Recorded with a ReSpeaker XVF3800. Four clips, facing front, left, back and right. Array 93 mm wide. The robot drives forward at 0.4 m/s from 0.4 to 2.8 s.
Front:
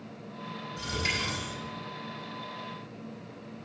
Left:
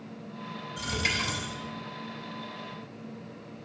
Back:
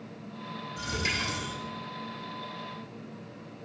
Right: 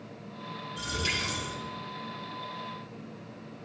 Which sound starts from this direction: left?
A dropped coin, at 0.8 s.